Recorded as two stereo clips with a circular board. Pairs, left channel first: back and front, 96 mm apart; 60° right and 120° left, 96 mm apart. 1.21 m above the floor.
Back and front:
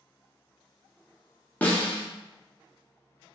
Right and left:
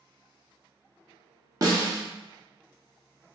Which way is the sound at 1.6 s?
115° left.